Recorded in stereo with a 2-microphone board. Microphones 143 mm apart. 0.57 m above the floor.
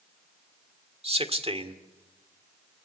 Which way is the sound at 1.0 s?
40° right (ahead or behind).